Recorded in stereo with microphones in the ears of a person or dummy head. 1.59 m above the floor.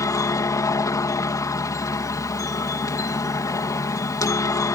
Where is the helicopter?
20° left (ahead or behind).